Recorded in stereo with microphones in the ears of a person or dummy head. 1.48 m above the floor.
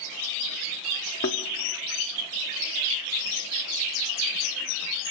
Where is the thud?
25° left (ahead or behind), 1.0 m.